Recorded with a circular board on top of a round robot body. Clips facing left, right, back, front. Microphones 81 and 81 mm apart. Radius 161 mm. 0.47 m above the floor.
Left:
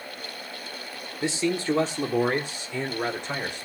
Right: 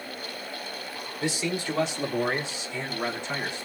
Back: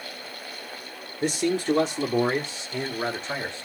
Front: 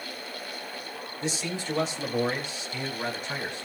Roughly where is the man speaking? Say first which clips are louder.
Left 4 dB, back 9 dB; behind left.